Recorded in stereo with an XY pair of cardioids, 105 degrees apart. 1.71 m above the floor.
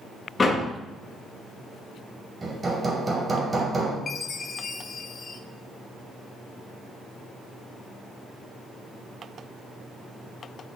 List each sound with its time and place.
0.4 s a door slam: 30° left, 2 m
2.4 s hammering: 30° right, 3 m
4.1 s a chime: 40° left, 0.9 m